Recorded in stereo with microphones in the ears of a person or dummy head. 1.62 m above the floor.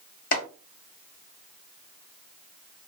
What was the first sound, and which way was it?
Chopping, 55° left (ahead or behind).